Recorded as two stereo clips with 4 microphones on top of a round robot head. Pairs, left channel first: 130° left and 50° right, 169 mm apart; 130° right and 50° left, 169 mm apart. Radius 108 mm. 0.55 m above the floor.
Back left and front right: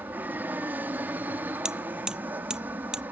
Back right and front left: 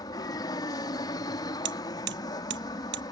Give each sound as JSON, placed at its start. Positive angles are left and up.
{"t": 0.0, "sound": "an aircraft", "azimuth_deg": -115}
{"t": 1.6, "sound": "hammering", "azimuth_deg": 35}